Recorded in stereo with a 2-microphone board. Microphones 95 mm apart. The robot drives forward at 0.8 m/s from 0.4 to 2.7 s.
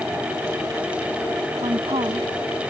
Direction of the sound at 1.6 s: 80° right.